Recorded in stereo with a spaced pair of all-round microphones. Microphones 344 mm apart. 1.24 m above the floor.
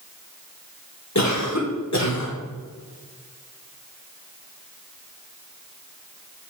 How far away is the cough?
About 1.4 m.